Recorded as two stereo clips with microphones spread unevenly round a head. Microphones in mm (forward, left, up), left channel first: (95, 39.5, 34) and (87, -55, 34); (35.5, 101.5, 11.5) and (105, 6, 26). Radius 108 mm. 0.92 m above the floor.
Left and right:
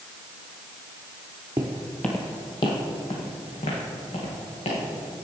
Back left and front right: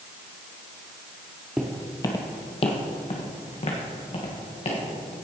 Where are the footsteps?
125° right, 1.0 m; by 4.8 s 100° left, 3.5 m.